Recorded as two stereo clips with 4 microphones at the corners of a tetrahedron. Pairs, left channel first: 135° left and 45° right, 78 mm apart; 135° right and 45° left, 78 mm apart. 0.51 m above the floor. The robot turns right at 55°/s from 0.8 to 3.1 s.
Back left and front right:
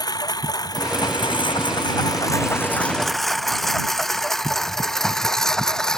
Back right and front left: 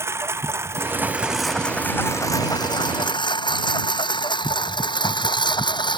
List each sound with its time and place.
0.0 s a lawn mower: 100° left; by 6.0 s 140° right